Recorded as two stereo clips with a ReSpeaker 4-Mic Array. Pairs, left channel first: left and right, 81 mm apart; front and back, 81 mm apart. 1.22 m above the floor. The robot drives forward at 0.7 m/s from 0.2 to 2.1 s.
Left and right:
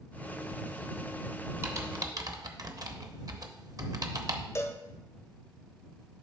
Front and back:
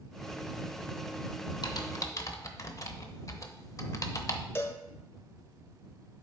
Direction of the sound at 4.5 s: 50° left.